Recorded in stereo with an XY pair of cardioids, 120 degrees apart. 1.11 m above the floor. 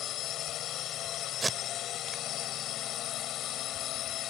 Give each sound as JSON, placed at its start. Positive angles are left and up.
{"t": 0.0, "sound": "a drone", "azimuth_deg": 70}
{"t": 1.4, "sound": "tape being pulled", "azimuth_deg": -20}